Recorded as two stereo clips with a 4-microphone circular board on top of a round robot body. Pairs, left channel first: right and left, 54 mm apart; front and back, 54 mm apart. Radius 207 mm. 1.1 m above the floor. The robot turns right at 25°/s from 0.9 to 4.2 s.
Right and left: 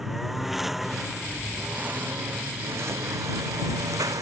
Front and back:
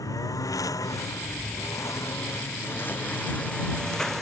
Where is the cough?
I don't hear a cough.